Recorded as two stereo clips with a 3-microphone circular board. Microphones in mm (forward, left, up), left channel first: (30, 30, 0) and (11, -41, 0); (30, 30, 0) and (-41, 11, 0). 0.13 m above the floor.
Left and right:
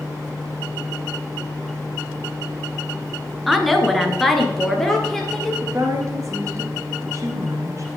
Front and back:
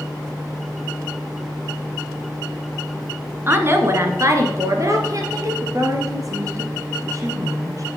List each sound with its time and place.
3.5 s a woman speaking: 170° left, 1.2 m; by 5.5 s 160° left, 2.5 m
5.6 s a woman speaking: 140° right, 1.9 m